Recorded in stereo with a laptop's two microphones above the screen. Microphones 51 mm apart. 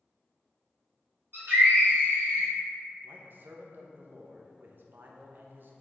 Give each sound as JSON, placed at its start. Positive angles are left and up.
{"t": 1.3, "sound": "a scream", "side_deg": -60, "distance_m": 1.7}
{"t": 3.0, "sound": "a man speaking", "side_deg": -50, "distance_m": 0.6}